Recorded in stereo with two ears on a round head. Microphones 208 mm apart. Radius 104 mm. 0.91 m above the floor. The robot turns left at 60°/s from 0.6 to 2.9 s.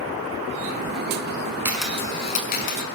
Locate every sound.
1.6 s a camera shutter: 10° right (ahead or behind), 6 m; by 2.8 s 60° left (ahead or behind), 6 m